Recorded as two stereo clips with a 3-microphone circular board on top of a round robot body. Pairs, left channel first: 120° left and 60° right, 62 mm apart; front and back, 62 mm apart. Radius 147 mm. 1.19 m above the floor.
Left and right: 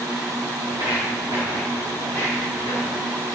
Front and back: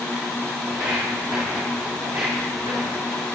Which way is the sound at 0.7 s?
145° left.